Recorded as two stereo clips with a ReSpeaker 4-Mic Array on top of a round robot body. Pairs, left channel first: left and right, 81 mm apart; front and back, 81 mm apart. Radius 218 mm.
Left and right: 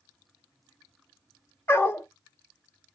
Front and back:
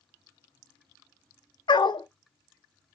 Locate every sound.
1.7 s a dog barking: 25° left, 0.8 m